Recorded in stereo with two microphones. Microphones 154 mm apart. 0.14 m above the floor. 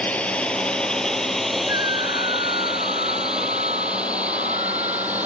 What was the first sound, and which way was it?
A drone, 10° left (ahead or behind).